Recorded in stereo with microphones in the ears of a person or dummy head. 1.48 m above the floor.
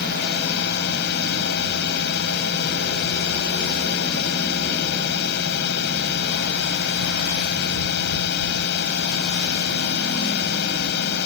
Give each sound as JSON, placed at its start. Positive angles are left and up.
{"t": 0.0, "sound": "a drone", "side_deg": 60}